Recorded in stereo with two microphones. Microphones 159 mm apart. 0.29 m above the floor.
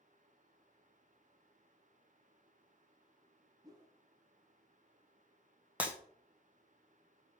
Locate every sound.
3.6 s a whoosh: 25° right (ahead or behind), 0.6 m
5.8 s breaking glass: 10° right (ahead or behind), 0.6 m